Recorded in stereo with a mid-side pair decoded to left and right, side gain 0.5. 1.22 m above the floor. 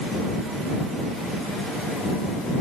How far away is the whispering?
I don't hear whispering.